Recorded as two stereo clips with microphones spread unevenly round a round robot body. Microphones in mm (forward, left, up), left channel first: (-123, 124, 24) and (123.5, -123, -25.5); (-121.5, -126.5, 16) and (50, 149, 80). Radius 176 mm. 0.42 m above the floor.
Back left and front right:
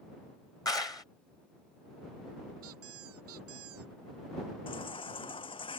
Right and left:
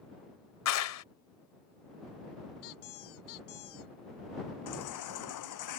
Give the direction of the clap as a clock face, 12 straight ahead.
5 o'clock.